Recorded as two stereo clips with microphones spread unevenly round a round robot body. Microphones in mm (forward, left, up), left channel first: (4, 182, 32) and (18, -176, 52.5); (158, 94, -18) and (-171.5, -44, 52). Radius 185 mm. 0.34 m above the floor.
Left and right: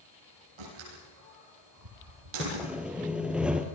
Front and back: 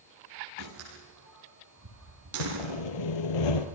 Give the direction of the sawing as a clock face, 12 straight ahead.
12 o'clock.